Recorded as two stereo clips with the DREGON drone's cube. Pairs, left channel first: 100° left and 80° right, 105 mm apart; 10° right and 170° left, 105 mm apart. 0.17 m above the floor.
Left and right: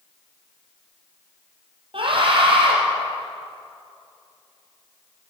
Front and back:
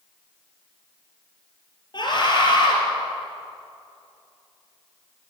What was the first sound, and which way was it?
A scream, 50° right.